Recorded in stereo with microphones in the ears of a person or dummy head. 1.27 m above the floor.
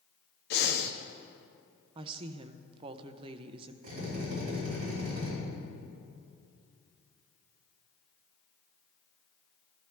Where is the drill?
55° right (ahead or behind), 4.5 m.